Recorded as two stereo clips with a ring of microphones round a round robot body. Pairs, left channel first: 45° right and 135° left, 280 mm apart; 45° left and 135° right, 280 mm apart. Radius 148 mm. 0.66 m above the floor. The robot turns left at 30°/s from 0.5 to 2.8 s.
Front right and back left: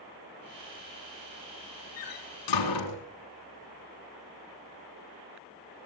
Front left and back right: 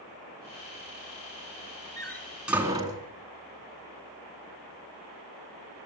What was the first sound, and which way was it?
A door slam, 35° right.